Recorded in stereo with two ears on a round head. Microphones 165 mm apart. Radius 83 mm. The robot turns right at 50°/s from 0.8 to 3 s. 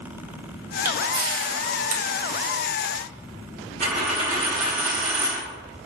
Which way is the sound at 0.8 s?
10° right (ahead or behind).